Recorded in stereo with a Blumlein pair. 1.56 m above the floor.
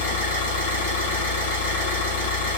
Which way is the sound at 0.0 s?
55° left.